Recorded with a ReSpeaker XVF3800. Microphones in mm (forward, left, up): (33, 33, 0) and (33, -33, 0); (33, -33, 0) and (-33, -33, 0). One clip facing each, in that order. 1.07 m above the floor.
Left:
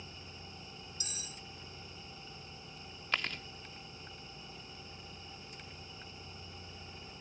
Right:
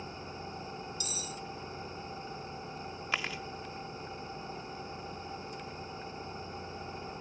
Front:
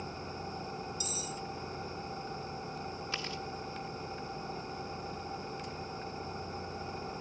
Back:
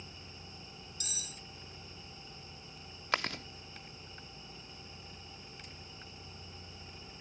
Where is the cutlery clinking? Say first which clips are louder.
Right 8 dB, front 10 dB; 145° left.